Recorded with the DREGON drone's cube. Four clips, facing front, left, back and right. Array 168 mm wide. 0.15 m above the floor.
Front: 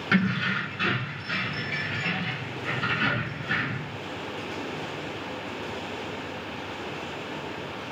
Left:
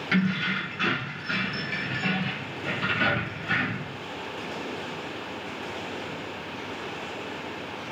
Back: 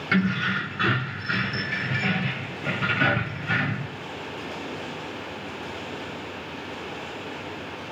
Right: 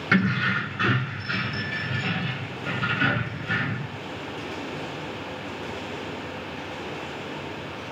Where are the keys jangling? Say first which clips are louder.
Right 3 dB, back 1 dB; 90° right, 1.0 m; by 3.9 s 160° left, 3 m.